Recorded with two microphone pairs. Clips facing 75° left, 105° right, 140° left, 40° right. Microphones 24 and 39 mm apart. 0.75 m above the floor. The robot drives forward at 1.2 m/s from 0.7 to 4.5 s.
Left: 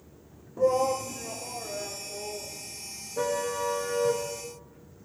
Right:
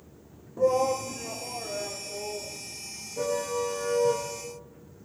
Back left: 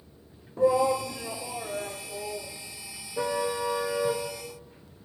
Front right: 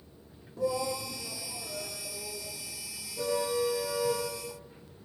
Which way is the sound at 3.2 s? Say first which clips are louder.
Even, back left 1 dB; 125° left.